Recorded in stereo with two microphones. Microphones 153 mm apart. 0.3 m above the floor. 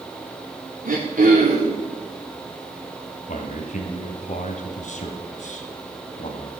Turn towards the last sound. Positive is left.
turn(degrees=55)  # may be behind; listen again after turning